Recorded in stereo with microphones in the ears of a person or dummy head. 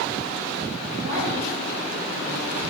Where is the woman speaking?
50° right (ahead or behind), 2 m.